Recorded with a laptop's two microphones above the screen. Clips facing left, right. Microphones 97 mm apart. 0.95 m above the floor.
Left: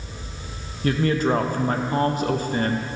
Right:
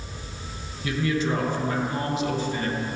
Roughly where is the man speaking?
Left.